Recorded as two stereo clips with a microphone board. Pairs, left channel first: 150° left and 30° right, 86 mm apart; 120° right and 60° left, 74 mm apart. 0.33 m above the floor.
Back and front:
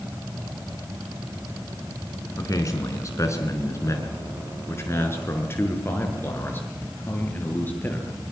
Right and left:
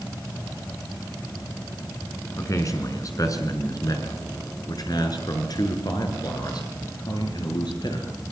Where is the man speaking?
165° right, 4.5 m; by 8.2 s 140° right, 7 m.